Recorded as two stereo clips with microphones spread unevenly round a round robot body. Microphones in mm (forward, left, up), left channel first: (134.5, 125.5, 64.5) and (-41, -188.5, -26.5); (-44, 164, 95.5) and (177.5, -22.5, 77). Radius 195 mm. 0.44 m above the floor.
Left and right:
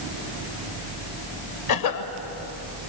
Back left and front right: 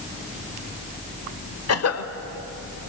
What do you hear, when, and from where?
1.7 s a cough: 110° left, 1.8 m